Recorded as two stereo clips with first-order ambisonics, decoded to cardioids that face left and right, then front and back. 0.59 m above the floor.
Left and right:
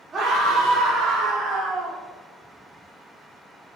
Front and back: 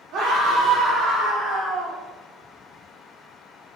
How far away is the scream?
About 1.4 m.